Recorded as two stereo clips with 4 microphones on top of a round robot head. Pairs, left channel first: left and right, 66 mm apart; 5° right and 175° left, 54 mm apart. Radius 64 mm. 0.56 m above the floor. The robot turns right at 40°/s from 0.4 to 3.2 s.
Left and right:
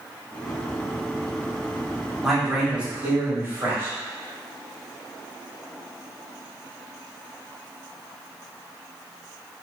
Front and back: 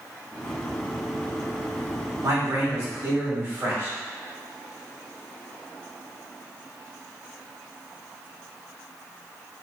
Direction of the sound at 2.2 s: Straight behind.